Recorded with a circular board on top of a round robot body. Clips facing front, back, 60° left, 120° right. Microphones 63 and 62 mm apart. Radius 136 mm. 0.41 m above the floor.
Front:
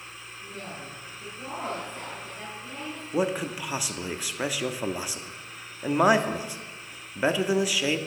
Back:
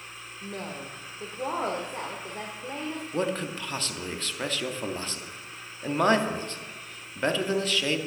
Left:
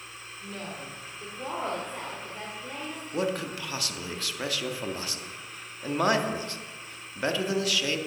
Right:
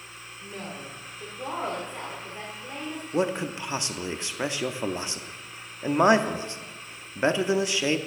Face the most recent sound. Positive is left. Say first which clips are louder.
# front 3 dB, right 3 dB
turn(degrees=-70)